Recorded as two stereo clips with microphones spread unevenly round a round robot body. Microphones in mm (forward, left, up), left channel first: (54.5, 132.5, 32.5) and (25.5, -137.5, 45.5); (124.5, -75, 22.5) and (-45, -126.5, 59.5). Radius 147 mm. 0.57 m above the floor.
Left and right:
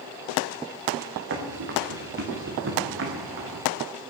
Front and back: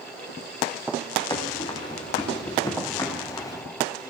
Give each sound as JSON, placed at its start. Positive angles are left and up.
{"t": 1.3, "sound": "running footsteps", "azimuth_deg": -50, "distance_m": 6.0}